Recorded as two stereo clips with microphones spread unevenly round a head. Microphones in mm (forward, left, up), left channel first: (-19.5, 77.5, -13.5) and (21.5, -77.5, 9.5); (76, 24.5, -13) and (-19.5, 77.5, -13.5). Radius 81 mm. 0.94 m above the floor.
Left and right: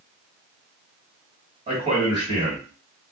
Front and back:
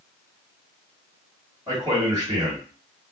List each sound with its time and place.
1.7 s a man speaking: 135° right, 1.6 m